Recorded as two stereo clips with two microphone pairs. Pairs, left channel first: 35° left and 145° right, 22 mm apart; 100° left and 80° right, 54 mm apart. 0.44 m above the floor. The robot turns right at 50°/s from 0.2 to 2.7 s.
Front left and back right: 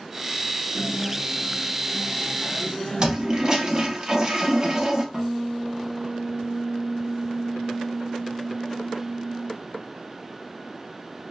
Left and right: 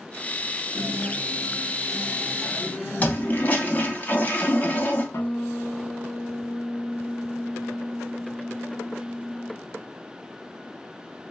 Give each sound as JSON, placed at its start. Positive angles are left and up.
{"t": 0.7, "sound": "a guitar", "azimuth_deg": -50, "distance_m": 1.0}
{"t": 3.0, "sound": "a toilet flushing", "azimuth_deg": 155, "distance_m": 0.5}
{"t": 5.1, "sound": "a guitar", "azimuth_deg": 140, "distance_m": 0.6}